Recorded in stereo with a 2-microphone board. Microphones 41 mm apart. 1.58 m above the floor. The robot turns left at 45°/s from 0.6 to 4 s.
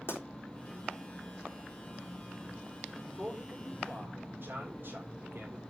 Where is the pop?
60° left (ahead or behind), 3.5 m.